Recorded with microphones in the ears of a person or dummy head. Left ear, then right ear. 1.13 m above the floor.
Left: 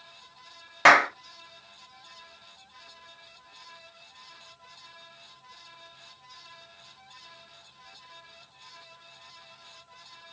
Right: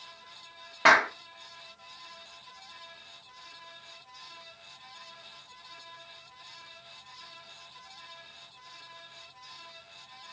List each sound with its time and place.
0.8 s a clap: 25° left (ahead or behind), 1.3 m